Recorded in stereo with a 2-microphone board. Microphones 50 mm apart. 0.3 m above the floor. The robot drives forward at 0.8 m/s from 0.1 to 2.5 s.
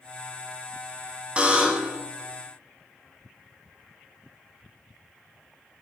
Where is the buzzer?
20° right (ahead or behind), 1.1 m; by 2.0 s 15° right (ahead or behind), 1.5 m.